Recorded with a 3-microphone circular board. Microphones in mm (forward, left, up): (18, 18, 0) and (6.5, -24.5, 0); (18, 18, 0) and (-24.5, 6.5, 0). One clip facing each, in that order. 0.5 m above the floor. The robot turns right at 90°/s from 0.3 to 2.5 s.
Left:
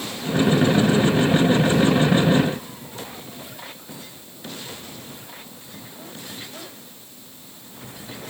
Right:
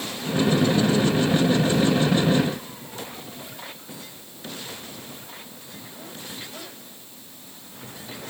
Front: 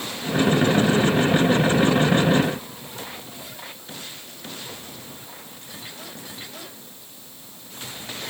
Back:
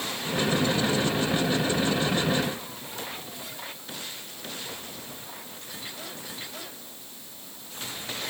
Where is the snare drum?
I don't hear a snare drum.